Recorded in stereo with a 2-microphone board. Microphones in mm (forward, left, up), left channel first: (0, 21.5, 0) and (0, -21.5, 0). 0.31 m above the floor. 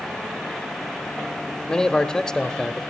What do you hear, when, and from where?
1.7 s a man speaking: 15° left (ahead or behind), 0.8 m